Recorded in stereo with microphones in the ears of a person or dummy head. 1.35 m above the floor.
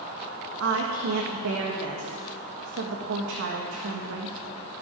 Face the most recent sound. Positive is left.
turn(degrees=-75)  # may be behind; listen again after turning